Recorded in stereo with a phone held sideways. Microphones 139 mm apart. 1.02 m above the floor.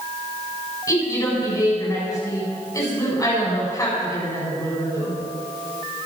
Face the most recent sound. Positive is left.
turn(degrees=25)  # may be behind; listen again after turning